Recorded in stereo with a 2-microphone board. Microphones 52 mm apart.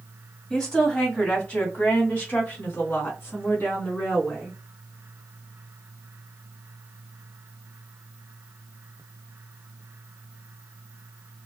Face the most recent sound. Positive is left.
turn(degrees=40)  # may be behind; listen again after turning